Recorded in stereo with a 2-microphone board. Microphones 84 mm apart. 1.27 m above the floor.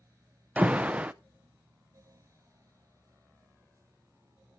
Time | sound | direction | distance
0.6 | an alarm | 15° right (ahead or behind) | 0.6 m